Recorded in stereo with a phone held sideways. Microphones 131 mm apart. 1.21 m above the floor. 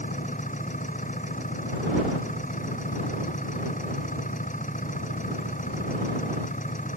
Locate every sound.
0.0 s an engine running: 80° left